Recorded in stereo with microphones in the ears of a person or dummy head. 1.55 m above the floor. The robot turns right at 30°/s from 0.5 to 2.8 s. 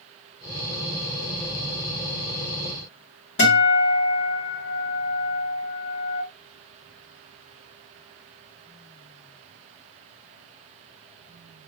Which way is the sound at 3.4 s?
55° left (ahead or behind).